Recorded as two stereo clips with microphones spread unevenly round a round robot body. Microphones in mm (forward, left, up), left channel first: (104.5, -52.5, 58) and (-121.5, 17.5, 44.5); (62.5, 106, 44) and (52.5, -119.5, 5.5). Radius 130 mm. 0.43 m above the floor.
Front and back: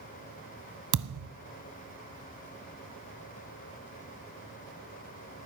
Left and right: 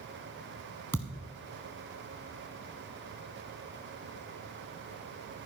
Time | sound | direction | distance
0.9 | a thud | 170° left | 0.8 m